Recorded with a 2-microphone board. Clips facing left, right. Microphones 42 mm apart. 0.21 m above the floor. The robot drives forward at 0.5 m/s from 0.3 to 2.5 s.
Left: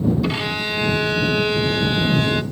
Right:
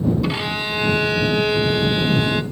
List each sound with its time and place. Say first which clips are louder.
0.2 s a violin: even; 5° right (ahead or behind), 0.9 m